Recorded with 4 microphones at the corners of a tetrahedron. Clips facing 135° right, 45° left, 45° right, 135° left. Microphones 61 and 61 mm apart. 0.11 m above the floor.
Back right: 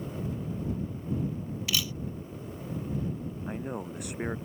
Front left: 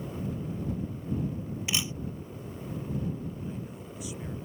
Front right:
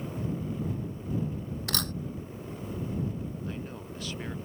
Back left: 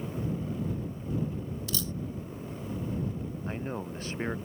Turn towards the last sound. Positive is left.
turn(degrees=-170)